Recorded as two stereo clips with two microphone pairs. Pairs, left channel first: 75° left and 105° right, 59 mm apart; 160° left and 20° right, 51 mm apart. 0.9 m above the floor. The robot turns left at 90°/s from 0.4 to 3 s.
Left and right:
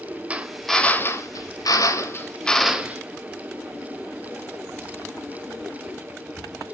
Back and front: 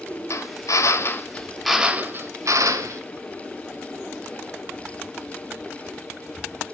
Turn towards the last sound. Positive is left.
turn(degrees=-50)